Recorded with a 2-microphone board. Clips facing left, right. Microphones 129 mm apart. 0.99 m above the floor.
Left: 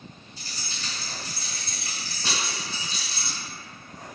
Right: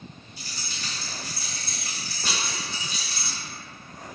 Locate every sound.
0.4 s keys jangling: 55° right (ahead or behind), 0.9 m